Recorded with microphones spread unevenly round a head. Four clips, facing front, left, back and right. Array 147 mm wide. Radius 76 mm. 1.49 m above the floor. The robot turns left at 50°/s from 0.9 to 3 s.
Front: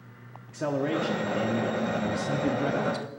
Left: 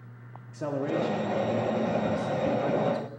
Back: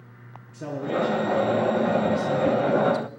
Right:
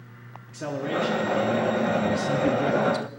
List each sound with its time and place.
0.5 s a man speaking: 20° left, 0.7 m; by 3.1 s 85° right, 0.7 m